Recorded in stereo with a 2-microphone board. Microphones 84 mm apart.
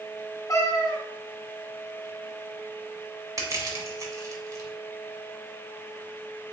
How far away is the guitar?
I don't hear a guitar.